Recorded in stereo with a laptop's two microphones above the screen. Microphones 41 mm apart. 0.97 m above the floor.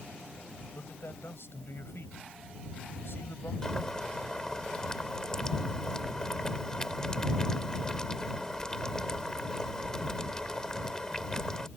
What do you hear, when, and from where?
0.7 s a man speaking: 80° left
3.6 s boiling: 20° left (ahead or behind)